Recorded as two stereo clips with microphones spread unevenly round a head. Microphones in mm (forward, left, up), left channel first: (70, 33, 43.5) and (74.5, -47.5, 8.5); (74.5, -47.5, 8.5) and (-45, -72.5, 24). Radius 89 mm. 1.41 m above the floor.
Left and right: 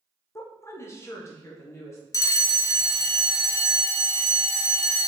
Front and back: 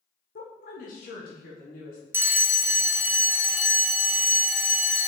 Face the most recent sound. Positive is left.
turn(degrees=135)